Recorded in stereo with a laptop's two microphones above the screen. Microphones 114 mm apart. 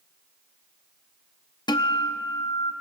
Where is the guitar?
40° left (ahead or behind), 0.6 m.